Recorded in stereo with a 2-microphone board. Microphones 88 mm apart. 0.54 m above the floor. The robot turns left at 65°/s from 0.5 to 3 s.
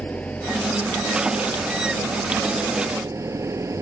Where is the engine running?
15° left; by 3.8 s 145° right.